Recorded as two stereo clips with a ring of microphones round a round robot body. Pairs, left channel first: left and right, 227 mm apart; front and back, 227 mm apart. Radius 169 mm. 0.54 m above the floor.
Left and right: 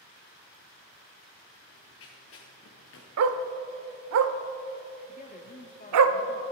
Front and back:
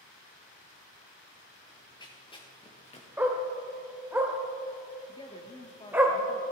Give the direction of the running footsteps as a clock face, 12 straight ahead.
10 o'clock.